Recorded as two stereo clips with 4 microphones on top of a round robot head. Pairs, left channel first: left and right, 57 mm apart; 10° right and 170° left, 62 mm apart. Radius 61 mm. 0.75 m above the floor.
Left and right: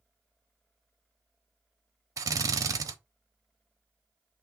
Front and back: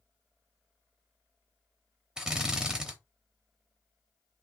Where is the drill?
110° right, 0.9 m.